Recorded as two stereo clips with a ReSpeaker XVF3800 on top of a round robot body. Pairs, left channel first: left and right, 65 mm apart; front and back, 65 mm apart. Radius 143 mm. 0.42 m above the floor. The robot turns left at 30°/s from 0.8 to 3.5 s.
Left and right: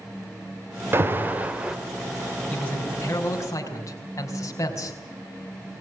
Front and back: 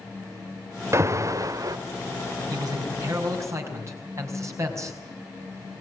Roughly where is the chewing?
I don't hear chewing.